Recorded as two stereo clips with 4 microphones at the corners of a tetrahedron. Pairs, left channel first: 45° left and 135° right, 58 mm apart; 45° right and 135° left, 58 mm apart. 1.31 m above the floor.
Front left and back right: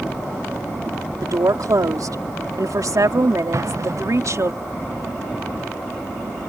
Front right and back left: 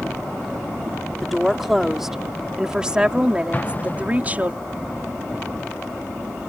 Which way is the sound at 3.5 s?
105° right.